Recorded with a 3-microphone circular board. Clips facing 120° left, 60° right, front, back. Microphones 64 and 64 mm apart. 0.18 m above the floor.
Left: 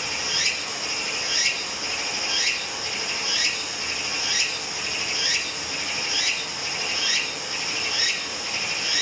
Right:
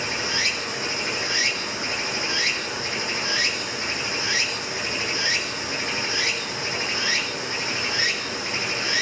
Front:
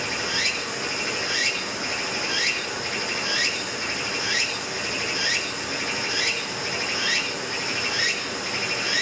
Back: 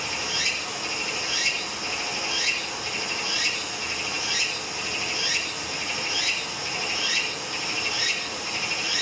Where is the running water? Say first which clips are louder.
Right 3 dB, front 3 dB; 15° right, 2.5 m.